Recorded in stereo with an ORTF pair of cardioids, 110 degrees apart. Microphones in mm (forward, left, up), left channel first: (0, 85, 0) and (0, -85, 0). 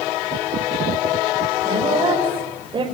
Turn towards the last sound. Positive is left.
turn(degrees=-30)